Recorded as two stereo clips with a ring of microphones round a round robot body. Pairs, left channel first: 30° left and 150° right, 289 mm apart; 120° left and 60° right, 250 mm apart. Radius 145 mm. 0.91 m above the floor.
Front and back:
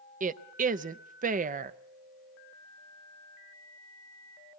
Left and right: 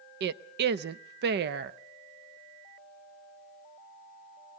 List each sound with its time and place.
0.2 s a woman speaking: 95° right, 0.6 m